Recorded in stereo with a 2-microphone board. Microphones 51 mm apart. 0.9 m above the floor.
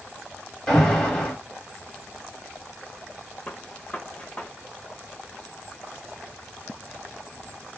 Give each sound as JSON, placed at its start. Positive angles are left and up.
{"t": 0.7, "sound": "an alarm", "side_deg": 10, "distance_m": 1.3}
{"t": 3.5, "sound": "a gunshot", "side_deg": 25, "distance_m": 0.7}